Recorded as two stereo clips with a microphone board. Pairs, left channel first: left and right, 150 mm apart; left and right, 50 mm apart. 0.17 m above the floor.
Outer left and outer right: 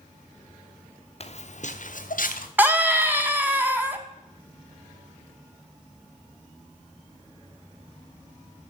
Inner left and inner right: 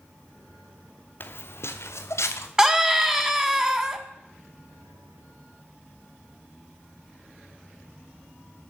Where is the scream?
15° right (ahead or behind), 1.2 m.